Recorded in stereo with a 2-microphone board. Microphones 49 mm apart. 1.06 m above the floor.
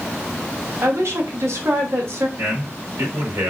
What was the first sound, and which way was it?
A woman speaking, 75° right (ahead or behind).